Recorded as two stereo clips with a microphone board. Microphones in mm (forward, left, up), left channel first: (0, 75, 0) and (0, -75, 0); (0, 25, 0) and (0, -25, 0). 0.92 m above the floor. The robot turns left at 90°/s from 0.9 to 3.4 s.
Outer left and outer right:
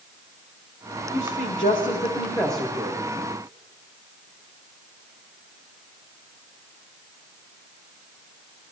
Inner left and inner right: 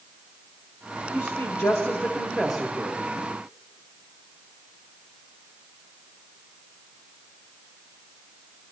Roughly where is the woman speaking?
Behind left.